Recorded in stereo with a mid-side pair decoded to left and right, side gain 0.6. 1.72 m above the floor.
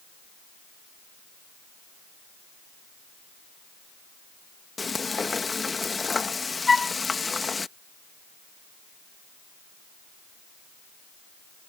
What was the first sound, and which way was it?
Frying, 25° left.